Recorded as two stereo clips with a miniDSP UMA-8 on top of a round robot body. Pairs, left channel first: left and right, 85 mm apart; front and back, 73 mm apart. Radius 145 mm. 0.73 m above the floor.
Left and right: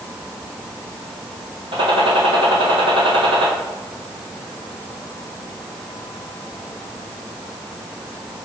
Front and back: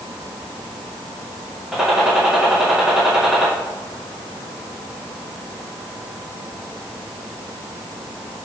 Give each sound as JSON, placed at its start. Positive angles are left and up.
{"t": 1.7, "sound": "a gunshot", "azimuth_deg": -95, "distance_m": 2.5}